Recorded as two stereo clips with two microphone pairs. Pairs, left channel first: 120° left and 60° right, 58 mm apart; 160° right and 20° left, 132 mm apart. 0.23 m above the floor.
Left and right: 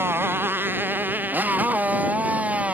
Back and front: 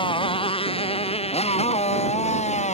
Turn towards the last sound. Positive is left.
turn(degrees=-130)